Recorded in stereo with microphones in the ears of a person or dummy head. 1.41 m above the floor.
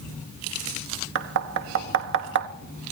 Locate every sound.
1.1 s knocking: 65° right (ahead or behind), 1.2 m